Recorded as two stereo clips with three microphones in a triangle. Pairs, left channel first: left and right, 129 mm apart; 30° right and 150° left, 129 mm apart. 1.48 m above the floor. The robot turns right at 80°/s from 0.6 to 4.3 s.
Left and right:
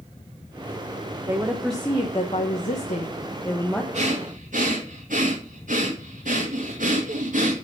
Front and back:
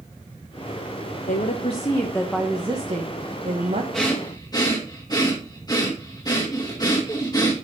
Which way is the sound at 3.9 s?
120° right.